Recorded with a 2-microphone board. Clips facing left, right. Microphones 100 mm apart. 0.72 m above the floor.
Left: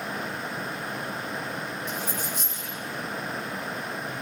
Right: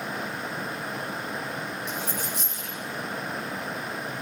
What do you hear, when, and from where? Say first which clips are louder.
1.9 s a dropped coin: even; 85° right, 5.5 m